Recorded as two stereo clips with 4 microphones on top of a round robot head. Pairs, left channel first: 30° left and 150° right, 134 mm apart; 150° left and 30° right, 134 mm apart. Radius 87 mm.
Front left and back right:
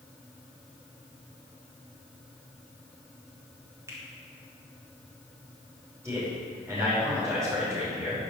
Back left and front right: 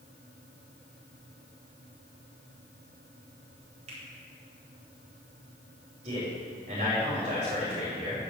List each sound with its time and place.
3.9 s a finger snap: 80° right, 4 m
6.0 s a man speaking: 75° right, 5.5 m